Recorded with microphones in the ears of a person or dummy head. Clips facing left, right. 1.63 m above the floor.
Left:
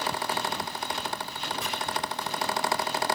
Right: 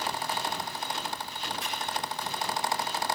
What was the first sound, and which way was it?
A fan, 60° left (ahead or behind).